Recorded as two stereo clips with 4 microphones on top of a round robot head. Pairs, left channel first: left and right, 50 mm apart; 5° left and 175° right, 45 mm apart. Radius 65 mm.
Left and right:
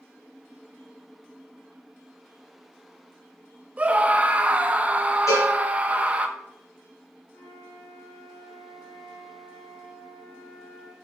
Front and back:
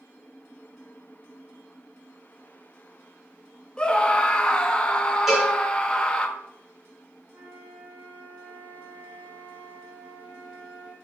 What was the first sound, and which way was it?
A scream, 50° right.